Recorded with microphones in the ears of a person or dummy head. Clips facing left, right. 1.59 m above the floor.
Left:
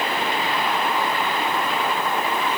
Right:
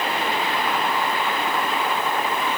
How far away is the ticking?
I don't hear ticking.